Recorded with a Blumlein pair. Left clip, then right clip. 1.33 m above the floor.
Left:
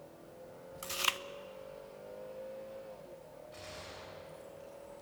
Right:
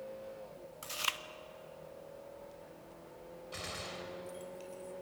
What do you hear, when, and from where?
0.8 s chewing: 10° left, 0.6 m
3.5 s a gunshot: 30° right, 3.5 m